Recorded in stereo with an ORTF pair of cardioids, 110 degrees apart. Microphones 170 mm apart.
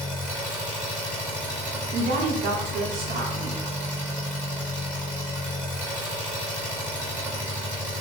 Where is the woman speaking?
60° right, 0.8 m.